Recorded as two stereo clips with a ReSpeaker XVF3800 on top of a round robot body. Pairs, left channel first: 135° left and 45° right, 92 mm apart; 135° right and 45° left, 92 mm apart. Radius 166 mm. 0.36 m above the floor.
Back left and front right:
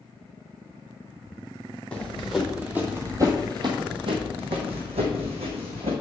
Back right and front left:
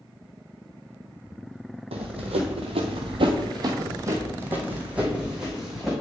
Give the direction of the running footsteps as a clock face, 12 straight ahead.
10 o'clock.